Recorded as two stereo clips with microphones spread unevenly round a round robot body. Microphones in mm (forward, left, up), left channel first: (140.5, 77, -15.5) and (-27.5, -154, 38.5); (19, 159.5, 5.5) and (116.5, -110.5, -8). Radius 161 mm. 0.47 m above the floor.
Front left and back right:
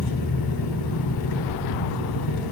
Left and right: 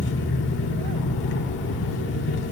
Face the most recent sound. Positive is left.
turn(degrees=60)